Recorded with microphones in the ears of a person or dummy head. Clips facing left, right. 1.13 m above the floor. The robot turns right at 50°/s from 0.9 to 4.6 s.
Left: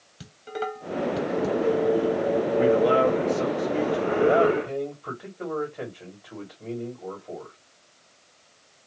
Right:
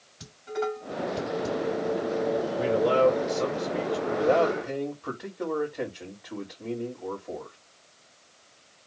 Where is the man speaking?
95° left, 1.5 m; by 7.5 s 165° right, 1.5 m.